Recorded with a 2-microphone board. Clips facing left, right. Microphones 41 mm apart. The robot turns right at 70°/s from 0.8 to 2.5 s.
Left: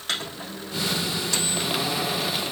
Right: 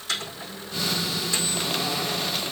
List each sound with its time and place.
0.1 s a microwave: 60° left (ahead or behind), 4 m; by 1.6 s 50° left (ahead or behind), 4 m